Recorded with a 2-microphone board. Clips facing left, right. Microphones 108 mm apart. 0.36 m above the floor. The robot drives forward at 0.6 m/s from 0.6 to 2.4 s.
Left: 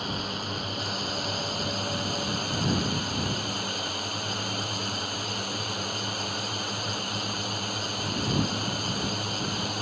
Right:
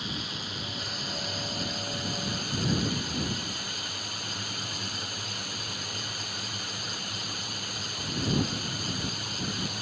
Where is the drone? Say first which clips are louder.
Left 5 dB; 50° left (ahead or behind); by 9.8 s 55° left (ahead or behind).